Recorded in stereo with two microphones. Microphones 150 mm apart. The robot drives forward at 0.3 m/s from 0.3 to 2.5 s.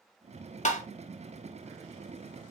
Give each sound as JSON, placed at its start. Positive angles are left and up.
{"t": 0.7, "sound": "tapping", "side_deg": 50, "distance_m": 0.6}